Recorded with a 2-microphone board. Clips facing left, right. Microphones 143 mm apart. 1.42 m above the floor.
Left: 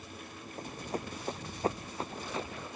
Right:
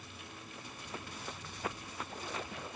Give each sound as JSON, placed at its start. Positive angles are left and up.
{"t": 0.6, "sound": "running footsteps", "side_deg": 45}